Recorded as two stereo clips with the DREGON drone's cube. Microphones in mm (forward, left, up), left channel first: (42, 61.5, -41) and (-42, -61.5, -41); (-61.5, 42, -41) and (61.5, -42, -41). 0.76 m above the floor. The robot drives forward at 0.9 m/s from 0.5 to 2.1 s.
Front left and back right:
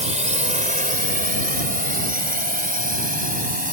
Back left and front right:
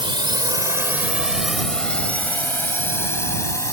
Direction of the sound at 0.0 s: 90° right.